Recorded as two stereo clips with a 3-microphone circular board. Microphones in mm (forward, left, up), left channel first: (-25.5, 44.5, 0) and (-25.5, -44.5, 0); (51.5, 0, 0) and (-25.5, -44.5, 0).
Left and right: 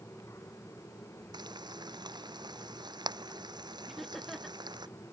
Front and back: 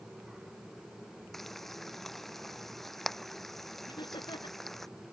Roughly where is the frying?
Ahead right.